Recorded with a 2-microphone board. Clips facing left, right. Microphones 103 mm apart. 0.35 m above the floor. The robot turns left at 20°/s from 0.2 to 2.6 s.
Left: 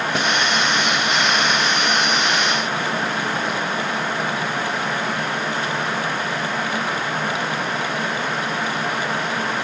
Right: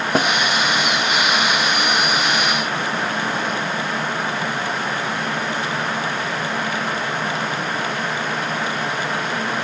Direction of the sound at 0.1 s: 40° right (ahead or behind).